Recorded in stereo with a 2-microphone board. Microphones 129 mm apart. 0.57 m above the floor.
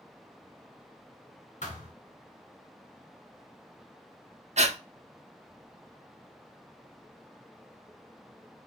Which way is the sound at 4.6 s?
60° right (ahead or behind).